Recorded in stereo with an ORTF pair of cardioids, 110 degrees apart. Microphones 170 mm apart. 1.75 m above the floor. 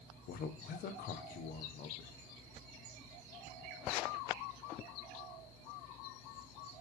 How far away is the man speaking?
About 1.1 m.